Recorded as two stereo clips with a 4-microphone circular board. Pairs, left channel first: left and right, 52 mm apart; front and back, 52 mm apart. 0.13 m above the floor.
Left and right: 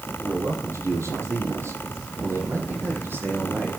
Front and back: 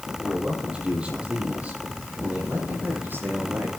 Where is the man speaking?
105° right, 4.5 m; by 3.8 s 135° right, 5.5 m.